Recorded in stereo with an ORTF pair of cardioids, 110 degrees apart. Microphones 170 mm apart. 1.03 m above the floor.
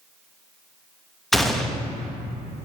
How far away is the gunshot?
About 0.9 m.